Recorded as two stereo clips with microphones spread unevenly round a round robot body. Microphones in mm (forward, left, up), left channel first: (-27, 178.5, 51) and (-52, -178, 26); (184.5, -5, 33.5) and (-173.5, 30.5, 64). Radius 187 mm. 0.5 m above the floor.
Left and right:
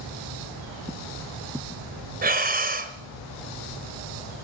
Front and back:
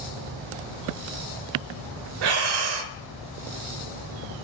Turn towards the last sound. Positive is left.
turn(degrees=-160)